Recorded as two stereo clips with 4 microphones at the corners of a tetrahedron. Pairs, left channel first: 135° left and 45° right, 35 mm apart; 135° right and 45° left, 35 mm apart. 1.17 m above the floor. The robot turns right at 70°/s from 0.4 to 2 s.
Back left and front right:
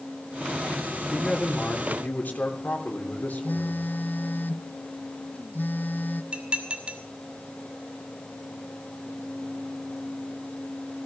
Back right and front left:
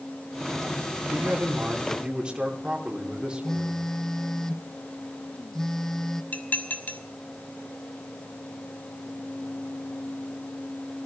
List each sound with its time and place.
1.1 s a man speaking: 45° left, 3 m; by 3.9 s 110° left, 3 m
3.4 s a phone buzzing: 150° left, 0.9 m
6.3 s dishes clattering: 95° right, 2.5 m